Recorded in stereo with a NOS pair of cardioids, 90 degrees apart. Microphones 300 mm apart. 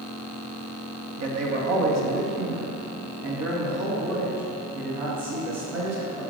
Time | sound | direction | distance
1.2 | a man speaking | 50° right | 1.7 m